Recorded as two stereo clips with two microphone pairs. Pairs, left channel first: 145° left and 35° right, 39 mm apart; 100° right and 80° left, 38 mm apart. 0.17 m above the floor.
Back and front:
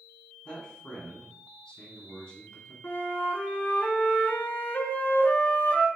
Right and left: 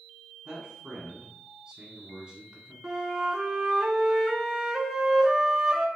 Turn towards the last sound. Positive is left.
turn(degrees=150)